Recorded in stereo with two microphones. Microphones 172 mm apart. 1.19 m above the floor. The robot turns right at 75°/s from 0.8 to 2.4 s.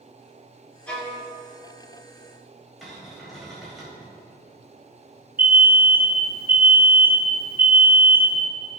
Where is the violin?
5° left (ahead or behind), 2.5 m; by 1.2 s 15° right (ahead or behind), 2.5 m.